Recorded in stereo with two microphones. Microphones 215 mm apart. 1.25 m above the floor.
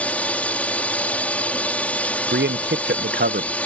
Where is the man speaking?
55° right (ahead or behind).